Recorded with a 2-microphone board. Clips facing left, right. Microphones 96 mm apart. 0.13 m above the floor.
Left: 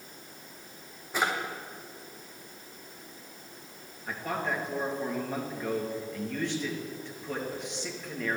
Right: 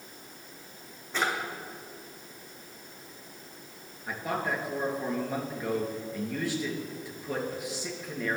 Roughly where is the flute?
I don't hear a flute.